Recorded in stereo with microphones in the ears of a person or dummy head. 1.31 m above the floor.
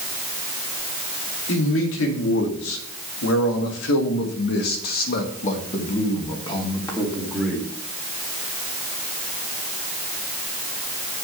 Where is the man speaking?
80° left, 2.5 m; by 7.7 s 5° left (ahead or behind), 2 m.